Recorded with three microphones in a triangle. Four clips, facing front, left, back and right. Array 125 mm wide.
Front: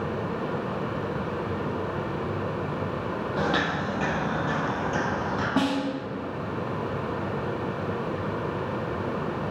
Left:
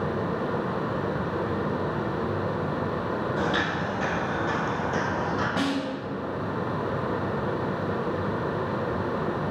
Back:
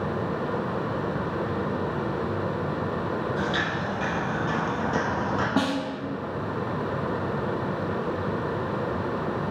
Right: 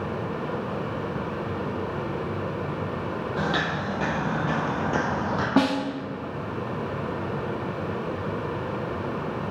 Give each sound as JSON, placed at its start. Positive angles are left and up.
{"t": 3.4, "sound": "footsteps", "azimuth_deg": -30, "distance_m": 2.5}
{"t": 5.6, "sound": "a snare drum", "azimuth_deg": -95, "distance_m": 0.7}